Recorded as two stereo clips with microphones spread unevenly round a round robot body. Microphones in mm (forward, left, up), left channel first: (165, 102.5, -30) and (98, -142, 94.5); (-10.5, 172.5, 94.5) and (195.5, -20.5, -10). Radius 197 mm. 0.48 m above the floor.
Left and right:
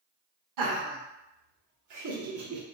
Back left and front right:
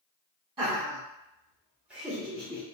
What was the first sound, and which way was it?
Laughter, 100° right.